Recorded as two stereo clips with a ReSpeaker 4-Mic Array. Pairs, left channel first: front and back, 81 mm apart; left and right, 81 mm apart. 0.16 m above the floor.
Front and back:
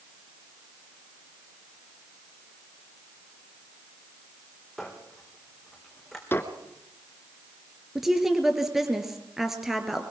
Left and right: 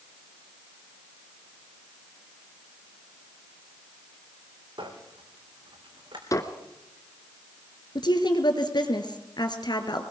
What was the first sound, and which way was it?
A squeak, 85° right.